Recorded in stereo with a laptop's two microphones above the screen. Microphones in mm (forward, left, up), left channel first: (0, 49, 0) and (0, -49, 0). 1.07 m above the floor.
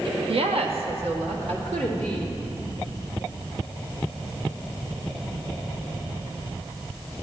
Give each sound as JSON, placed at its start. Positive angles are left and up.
{"t": 0.3, "sound": "a woman speaking", "side_deg": -65, "distance_m": 0.9}